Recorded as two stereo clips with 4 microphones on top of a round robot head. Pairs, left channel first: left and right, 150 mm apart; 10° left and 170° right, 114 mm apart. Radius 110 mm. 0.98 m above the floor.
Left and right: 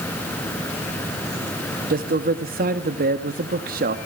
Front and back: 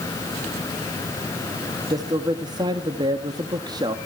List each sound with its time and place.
1.9 s a man speaking: 110° right, 1.8 m